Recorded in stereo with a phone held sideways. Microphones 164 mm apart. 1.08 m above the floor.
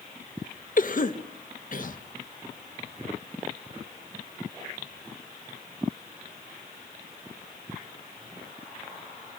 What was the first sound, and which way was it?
A cough, 55° left (ahead or behind).